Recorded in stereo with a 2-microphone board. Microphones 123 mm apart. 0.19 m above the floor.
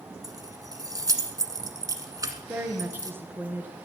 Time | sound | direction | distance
0.2 | keys jangling | 30° right (ahead or behind) | 1.2 m
2.5 | a woman speaking | 15° right (ahead or behind) | 2 m